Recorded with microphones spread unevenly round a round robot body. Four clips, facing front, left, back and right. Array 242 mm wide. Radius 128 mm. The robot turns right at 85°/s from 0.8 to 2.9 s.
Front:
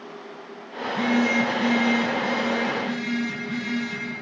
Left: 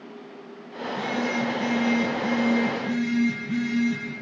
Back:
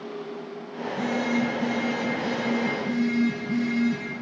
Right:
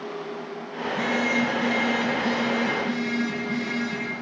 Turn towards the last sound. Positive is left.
turn(degrees=135)